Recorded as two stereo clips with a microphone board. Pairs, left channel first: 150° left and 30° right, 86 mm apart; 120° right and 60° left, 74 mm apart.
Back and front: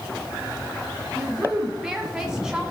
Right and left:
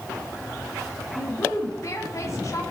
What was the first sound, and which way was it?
A woman speaking, 110° right.